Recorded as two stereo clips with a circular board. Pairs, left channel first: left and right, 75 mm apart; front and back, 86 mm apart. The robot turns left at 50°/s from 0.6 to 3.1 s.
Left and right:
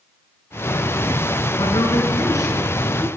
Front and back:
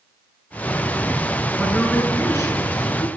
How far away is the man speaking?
About 4.5 m.